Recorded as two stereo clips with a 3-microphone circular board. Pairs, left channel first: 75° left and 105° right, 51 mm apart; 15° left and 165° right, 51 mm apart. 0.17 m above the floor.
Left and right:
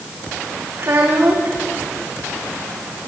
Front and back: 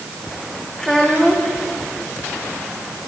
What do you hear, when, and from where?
0.8 s a child speaking: 65° right, 6.5 m